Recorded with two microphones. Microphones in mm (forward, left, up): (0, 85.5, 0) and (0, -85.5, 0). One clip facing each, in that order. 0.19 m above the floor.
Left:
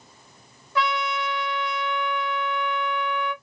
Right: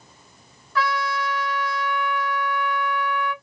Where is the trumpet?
20° left (ahead or behind), 0.9 m.